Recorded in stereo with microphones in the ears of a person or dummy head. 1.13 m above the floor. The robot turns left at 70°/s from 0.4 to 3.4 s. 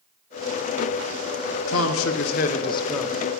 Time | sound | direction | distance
1.7 | a man speaking | 105° left | 0.9 m